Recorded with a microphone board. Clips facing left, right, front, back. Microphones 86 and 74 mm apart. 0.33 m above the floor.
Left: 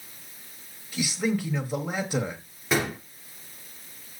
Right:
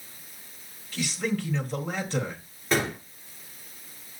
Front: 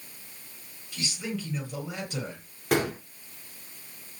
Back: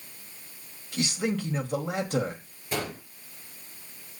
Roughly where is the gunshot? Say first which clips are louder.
Even, front 6 dB; ahead.